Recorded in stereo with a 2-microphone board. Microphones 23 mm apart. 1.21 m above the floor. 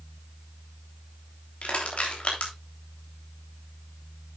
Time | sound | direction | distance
1.6 | crushing | 80° left | 3 m